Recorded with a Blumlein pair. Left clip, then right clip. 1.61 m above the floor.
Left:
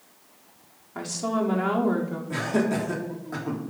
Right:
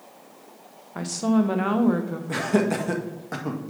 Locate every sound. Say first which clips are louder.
0.9 s a woman speaking: right 2 dB; 10° right, 1.2 m
2.3 s laughter: right 3 dB; 45° right, 1.8 m